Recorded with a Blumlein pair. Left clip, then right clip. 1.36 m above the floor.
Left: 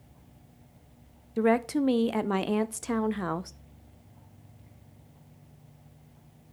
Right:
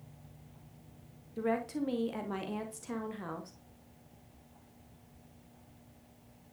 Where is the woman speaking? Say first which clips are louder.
Left 9 dB; 30° left, 0.6 m.